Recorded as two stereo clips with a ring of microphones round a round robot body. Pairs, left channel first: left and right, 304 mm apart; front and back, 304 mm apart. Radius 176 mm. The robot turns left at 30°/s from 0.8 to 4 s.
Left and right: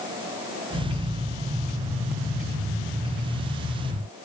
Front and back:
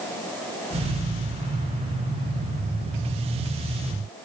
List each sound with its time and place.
Only background noise.